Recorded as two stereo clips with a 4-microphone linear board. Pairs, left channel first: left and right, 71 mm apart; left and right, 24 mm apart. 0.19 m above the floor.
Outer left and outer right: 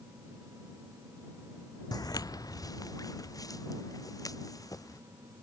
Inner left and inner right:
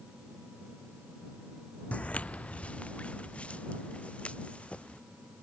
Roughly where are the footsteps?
Left.